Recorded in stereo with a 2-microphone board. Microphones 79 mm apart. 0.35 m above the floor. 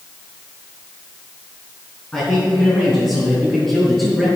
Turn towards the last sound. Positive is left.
turn(degrees=0)  # may be behind; listen again after turning